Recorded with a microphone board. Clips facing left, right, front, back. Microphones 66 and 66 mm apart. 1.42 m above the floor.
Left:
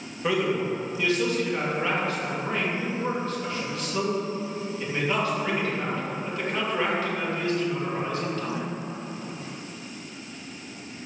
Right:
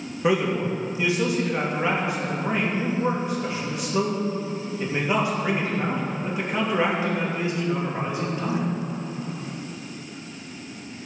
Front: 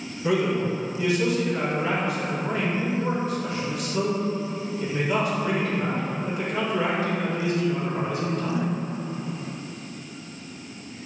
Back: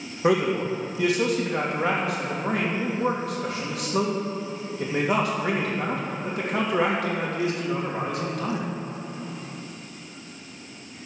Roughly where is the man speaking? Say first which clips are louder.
Right 2 dB, back 1 dB; behind.